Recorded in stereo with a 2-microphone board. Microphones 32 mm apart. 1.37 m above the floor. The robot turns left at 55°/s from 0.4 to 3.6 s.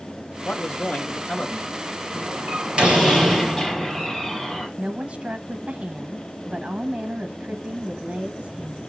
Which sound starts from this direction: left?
A man speaking, at 0.5 s.